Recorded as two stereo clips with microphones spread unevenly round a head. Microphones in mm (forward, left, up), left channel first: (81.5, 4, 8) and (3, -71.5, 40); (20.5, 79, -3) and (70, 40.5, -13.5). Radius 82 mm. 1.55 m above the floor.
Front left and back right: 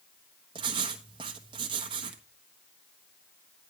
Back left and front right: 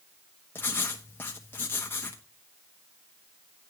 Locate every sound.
0.6 s writing: 170° right, 1.1 m